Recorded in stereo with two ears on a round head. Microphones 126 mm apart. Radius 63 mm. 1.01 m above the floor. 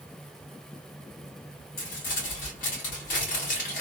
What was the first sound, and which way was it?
Crumpling, 70° left (ahead or behind).